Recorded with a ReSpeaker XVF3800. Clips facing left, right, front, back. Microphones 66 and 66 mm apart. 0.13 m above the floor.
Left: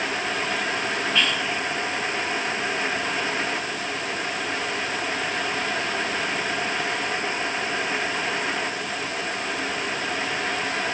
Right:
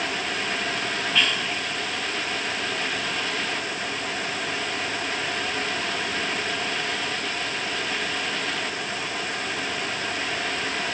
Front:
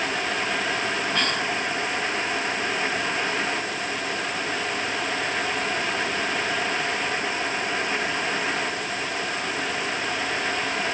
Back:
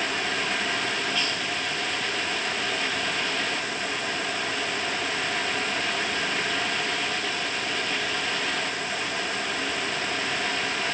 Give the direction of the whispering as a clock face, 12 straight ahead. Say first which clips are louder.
Even, front 4 dB; 12 o'clock.